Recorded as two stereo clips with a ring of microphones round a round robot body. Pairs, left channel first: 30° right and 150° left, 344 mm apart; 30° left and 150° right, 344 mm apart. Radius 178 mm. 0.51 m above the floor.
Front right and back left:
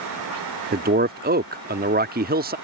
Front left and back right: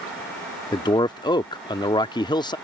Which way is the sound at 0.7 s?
100° left.